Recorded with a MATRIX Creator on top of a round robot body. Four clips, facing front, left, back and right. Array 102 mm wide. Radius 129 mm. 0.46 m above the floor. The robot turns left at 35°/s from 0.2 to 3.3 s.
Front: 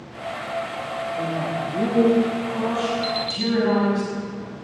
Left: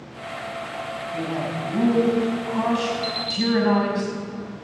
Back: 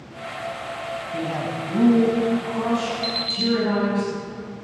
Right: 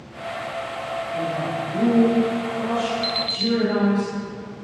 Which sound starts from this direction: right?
An alarm clock, at 3.0 s.